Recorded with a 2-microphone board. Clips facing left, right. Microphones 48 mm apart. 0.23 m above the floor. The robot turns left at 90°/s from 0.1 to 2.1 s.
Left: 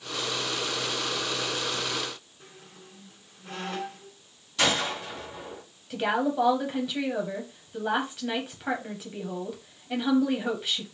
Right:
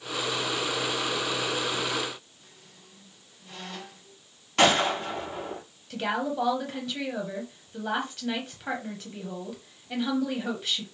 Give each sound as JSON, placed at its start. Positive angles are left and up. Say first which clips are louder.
{"t": 2.4, "sound": "a squeak", "louder": "left 5 dB", "side_deg": 60, "distance_m": 1.6}
{"t": 4.6, "sound": "a gunshot", "louder": "right 5 dB", "side_deg": -75, "distance_m": 3.0}
{"t": 5.9, "sound": "a woman speaking", "louder": "left 3 dB", "side_deg": 10, "distance_m": 1.0}